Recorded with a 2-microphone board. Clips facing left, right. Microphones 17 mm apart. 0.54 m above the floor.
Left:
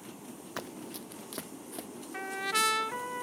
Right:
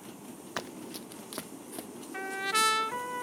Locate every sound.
0.6 s running footsteps: 20° right (ahead or behind); by 1.9 s centre (ahead or behind)
2.1 s a trumpet: 10° right (ahead or behind)